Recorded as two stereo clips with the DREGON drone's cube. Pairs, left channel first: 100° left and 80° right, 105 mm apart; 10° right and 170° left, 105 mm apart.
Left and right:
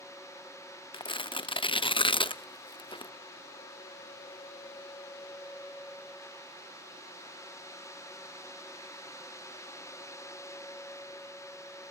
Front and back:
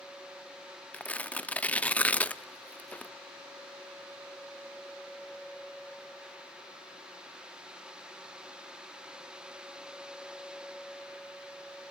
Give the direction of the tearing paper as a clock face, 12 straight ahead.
10 o'clock.